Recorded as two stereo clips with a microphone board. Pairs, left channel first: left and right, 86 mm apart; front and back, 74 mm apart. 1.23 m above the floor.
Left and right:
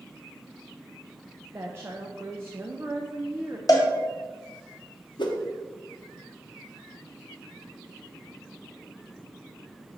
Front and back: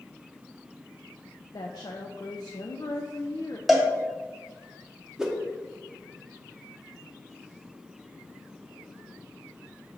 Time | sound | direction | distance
1.5 | a woman speaking | 25° right | 0.5 m
3.7 | a cowbell | 90° left | 1.3 m
5.2 | a whoosh | 100° left | 0.8 m